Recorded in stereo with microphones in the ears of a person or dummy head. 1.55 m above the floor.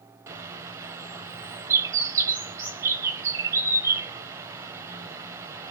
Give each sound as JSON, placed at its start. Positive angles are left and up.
{"t": 0.3, "sound": "a bird", "side_deg": -15, "distance_m": 0.9}